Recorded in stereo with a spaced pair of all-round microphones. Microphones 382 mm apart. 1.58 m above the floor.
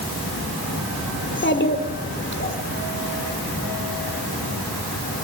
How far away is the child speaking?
About 3 m.